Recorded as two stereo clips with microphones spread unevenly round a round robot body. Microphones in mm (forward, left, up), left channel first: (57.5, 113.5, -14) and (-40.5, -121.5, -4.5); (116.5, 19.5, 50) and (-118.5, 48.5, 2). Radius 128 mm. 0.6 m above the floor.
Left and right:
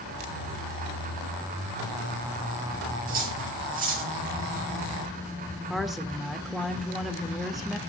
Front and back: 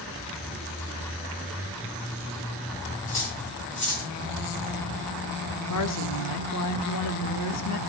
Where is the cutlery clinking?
55° right, 7 m.